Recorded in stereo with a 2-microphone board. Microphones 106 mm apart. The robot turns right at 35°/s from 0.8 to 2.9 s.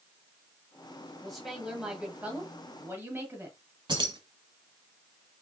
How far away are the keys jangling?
About 1.3 m.